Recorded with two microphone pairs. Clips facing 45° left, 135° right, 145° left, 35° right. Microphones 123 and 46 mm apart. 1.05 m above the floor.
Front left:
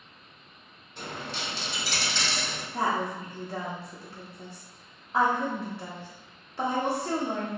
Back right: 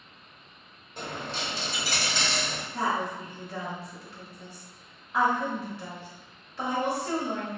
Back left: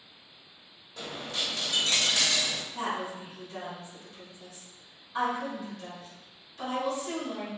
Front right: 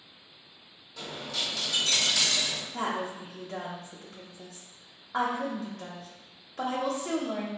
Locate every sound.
1.0 s a dropped coin: 170° right, 1.5 m
2.7 s a woman speaking: 15° right, 0.7 m